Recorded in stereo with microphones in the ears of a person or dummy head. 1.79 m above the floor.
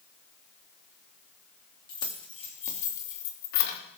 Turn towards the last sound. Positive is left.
turn(degrees=60)  # may be behind; listen again after turning